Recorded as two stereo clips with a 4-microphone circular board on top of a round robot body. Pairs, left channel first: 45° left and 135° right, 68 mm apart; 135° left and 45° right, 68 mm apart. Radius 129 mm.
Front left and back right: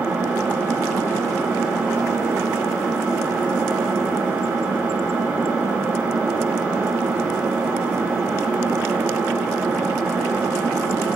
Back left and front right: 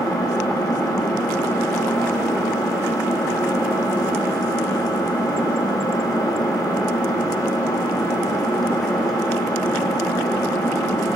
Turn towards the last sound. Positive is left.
turn(degrees=155)